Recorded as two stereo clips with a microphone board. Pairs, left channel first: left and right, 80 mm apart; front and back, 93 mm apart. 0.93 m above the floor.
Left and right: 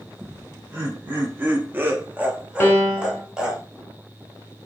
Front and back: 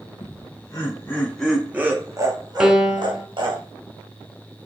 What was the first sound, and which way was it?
Laughter, 25° right.